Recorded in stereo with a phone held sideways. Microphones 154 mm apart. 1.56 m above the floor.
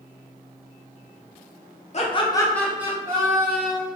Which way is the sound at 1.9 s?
45° left (ahead or behind).